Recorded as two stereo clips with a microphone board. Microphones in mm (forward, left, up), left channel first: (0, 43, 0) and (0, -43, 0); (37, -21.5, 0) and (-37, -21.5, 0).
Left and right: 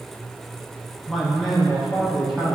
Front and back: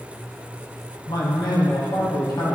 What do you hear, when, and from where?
1.1 s a man speaking: straight ahead, 4 m